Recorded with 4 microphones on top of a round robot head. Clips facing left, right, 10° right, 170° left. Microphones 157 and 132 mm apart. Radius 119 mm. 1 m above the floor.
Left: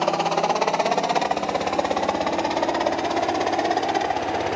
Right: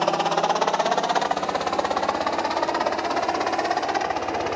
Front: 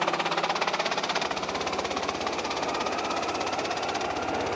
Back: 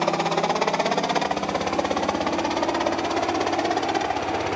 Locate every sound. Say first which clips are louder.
0.0 s a helicopter: even, back 5 dB; 175° left; by 4.6 s 150° left